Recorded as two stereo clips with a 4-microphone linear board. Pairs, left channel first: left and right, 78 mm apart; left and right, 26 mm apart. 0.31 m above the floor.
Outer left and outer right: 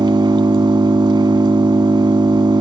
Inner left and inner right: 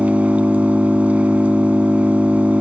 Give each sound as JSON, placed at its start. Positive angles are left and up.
{"t": 0.0, "sound": "an engine running", "side_deg": -80, "distance_m": 0.8}